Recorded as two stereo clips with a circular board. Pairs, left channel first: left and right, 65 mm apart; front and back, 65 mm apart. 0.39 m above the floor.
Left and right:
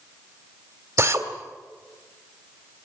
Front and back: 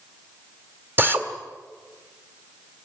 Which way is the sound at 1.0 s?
130° right.